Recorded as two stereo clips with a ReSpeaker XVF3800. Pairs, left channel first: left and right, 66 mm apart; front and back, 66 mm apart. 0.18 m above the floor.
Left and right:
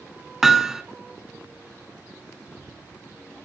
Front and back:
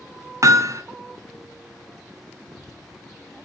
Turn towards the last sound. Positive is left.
turn(degrees=-170)